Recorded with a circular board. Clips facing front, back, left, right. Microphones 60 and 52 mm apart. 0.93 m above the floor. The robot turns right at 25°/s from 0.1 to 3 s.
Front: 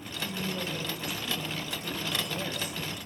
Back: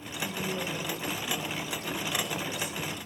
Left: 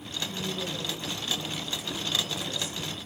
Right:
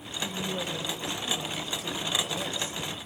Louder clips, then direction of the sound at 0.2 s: Back 1 dB, right 2 dB; 100° right.